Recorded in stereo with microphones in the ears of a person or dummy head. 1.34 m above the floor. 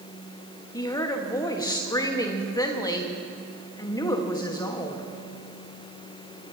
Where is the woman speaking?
20° left (ahead or behind), 1.4 m.